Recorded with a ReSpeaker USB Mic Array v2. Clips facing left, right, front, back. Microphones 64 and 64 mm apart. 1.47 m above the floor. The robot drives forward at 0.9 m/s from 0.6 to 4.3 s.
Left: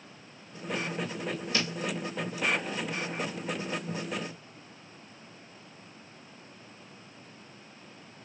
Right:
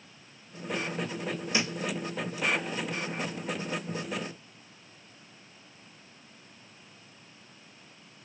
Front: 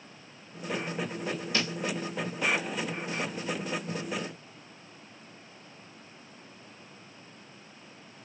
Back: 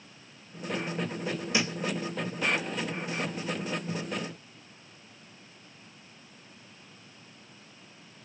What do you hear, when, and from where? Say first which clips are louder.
1.5 s a thud: right 2 dB, back 3 dB; 130° right, 0.9 m; by 1.8 s 150° right, 0.9 m